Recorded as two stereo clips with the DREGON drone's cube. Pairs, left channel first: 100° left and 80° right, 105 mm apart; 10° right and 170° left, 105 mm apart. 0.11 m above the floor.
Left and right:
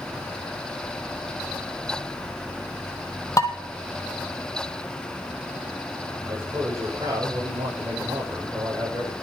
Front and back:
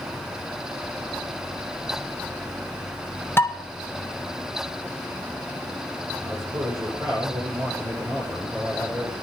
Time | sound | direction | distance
3.4 | dishes clattering | 50° left | 1.9 m
6.2 | a man speaking | 135° right | 7 m